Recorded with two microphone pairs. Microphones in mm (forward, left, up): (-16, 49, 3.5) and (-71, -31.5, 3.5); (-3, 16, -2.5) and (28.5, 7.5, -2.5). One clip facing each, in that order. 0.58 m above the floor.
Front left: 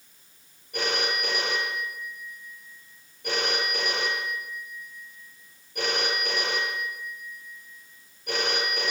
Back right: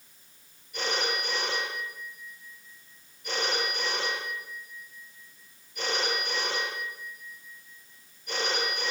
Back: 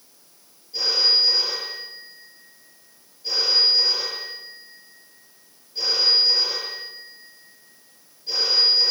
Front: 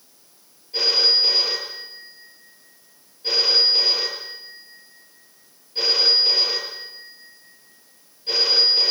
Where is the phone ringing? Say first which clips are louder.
Front left 2 dB, front 1 dB; 30° left, 8 m.